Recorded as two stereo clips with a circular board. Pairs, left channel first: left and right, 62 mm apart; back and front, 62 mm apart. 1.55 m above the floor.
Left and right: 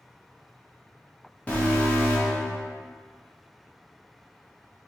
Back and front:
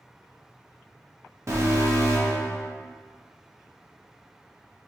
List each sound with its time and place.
1.5 s an alarm: 25° left, 1.1 m